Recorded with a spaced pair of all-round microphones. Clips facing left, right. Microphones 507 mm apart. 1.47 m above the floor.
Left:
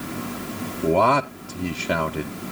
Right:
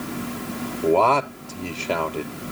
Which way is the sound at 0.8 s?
40° left (ahead or behind).